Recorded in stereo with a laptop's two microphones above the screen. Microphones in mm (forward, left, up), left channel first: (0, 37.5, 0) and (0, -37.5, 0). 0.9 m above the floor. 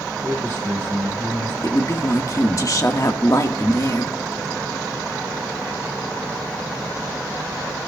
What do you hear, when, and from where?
0.2 s a man speaking: 30° left (ahead or behind), 6 m; by 1.5 s 25° left (ahead or behind), 6 m
1.6 s a woman speaking: 50° left (ahead or behind), 1.5 m